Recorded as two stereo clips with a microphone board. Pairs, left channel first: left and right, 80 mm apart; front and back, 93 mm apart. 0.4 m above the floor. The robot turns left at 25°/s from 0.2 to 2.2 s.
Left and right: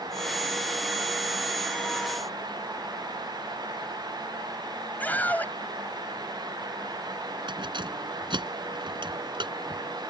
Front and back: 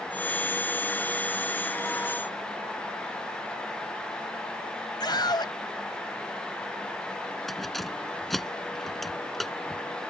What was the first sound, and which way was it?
A scream, 25° left.